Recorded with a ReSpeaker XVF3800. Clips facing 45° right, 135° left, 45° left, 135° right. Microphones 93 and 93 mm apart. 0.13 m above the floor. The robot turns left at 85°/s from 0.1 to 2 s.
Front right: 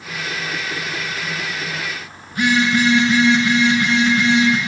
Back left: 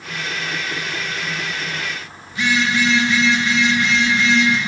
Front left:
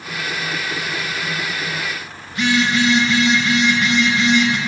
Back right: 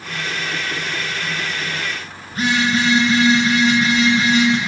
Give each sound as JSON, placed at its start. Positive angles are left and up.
{"t": 2.3, "sound": "a phone buzzing", "azimuth_deg": -85, "distance_m": 7.5}